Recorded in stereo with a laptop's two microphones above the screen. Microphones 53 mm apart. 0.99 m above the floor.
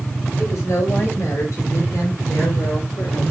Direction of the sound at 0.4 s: 70° left (ahead or behind).